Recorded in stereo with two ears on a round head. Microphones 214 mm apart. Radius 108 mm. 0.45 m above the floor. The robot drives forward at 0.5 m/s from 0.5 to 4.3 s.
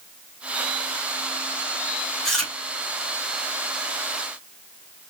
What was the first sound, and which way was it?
Chewing, centre (ahead or behind).